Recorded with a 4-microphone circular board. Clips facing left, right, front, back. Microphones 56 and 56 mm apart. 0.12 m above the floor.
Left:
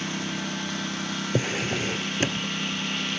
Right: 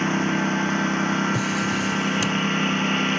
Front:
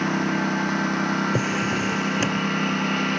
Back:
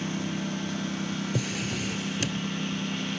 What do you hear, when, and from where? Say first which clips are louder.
0.0 s a lawn mower: right 9 dB, front 9 dB; 35° right
1.3 s a drawer: right 3 dB, front 8 dB; 45° left